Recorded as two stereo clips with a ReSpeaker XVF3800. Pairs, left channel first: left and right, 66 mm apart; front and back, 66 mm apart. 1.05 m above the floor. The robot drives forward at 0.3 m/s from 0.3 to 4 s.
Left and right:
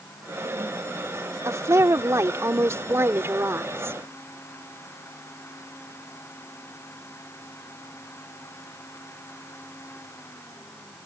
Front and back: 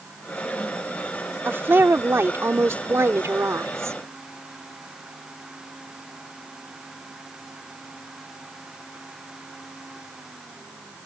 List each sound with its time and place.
1.4 s a woman speaking: 125° right; by 4.0 s 140° right